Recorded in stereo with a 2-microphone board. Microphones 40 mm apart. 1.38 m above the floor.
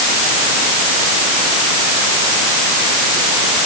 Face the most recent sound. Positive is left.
No sound to turn to.